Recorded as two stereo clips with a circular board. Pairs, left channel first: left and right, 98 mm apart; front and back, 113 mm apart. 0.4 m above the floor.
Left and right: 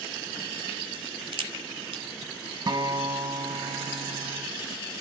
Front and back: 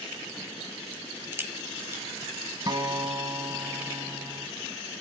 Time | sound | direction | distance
0.9 | a crack | 110° right | 0.9 m
2.7 | a guitar | 130° right | 0.6 m